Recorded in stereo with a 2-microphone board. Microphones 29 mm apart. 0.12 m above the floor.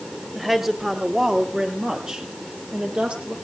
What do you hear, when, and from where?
0.3 s a woman speaking: 5° right (ahead or behind), 3 m; by 3.4 s 40° right (ahead or behind), 4 m